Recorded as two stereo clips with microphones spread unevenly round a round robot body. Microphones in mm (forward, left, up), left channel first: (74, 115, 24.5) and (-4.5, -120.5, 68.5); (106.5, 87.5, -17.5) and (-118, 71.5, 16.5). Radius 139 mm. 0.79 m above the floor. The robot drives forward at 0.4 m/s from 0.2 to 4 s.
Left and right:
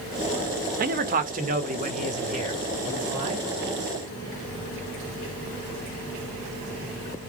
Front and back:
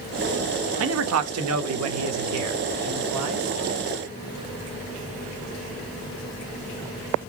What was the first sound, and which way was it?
A man speaking, 160° right.